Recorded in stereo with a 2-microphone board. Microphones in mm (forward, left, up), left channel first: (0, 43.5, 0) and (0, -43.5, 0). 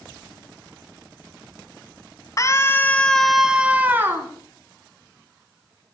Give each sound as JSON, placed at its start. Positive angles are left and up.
{"t": 2.4, "sound": "a scream", "side_deg": 40, "distance_m": 1.9}